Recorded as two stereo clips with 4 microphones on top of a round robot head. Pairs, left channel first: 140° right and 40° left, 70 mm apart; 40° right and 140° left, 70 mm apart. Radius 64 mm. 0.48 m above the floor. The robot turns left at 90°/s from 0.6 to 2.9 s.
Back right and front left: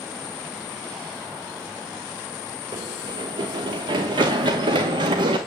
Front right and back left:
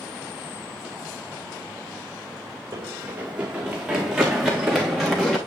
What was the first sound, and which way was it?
Running footsteps, 85° left.